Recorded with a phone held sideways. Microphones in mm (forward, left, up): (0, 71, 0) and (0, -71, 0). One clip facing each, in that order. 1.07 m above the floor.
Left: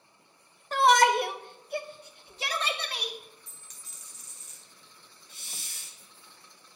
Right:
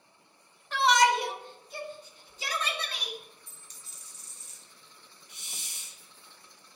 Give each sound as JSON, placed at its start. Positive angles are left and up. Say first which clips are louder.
{"t": 0.7, "sound": "a shout", "louder": "left 3 dB", "side_deg": 40, "distance_m": 0.8}
{"t": 3.5, "sound": "a dropped coin", "louder": "even", "side_deg": -35, "distance_m": 2.0}
{"t": 5.3, "sound": "a hiss", "louder": "left 1 dB", "side_deg": -20, "distance_m": 1.3}